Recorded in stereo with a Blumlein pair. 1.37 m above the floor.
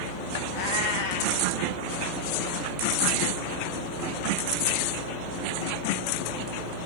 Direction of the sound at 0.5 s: 55° left.